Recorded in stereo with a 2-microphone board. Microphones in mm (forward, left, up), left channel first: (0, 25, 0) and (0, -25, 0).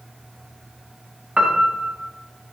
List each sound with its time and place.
1.4 s a piano: 20° right (ahead or behind), 1.3 m